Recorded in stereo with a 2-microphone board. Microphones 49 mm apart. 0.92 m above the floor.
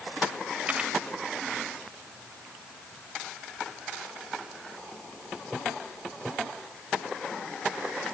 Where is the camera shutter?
30° right (ahead or behind).